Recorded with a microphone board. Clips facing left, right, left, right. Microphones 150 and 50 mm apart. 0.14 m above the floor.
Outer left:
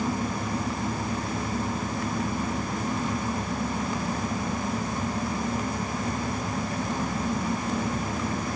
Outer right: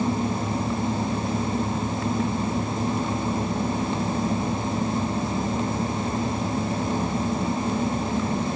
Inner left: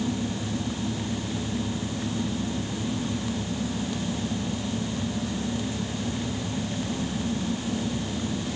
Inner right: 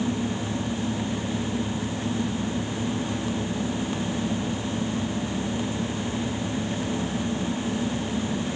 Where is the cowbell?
No cowbell in this recording.